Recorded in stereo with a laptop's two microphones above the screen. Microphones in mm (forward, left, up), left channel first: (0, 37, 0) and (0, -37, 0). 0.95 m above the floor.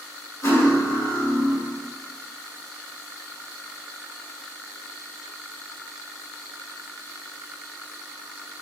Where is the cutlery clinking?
45° left (ahead or behind), 1.7 m.